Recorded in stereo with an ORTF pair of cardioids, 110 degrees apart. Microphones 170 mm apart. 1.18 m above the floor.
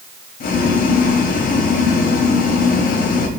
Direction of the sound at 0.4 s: 65° left.